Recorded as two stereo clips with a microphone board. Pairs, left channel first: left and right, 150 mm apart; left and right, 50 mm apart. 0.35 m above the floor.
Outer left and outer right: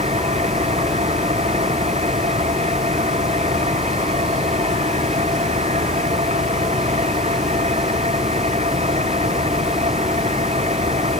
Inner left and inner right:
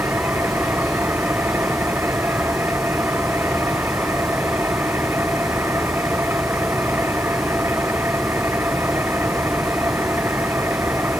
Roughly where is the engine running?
Right.